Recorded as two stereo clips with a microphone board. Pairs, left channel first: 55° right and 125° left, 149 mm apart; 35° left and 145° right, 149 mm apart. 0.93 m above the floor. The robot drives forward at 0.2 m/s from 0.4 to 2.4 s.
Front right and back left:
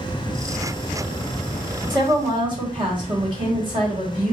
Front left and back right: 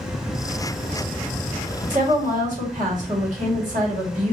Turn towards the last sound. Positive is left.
turn(degrees=180)